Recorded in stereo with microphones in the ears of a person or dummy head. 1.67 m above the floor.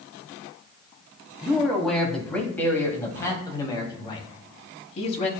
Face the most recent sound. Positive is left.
turn(degrees=35)  # may be behind; listen again after turning